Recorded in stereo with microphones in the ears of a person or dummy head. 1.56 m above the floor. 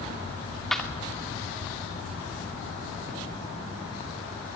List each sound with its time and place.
0.7 s a clap: 5° left (ahead or behind), 2.5 m